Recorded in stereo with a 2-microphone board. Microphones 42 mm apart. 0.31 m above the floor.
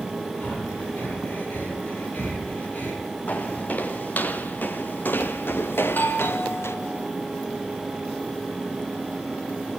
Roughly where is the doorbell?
Left.